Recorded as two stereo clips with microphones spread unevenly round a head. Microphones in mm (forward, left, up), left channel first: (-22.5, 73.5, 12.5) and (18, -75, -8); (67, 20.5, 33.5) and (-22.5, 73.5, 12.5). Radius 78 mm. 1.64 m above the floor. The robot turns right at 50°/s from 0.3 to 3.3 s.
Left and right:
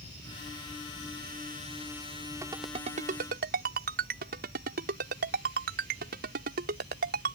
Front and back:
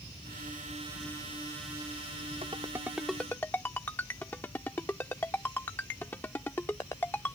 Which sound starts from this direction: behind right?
A ringtone, at 2.4 s.